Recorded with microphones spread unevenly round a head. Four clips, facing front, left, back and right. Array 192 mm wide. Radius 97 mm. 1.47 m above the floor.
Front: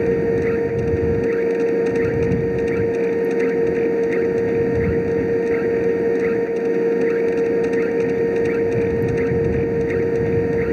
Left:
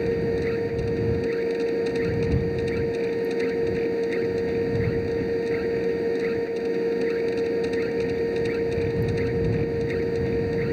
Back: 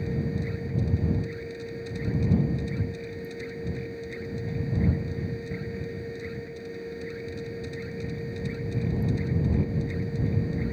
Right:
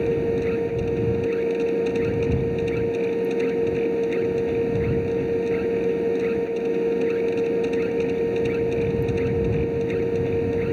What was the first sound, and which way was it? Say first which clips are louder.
A machine running: right 2 dB, front 14 dB; 5° right.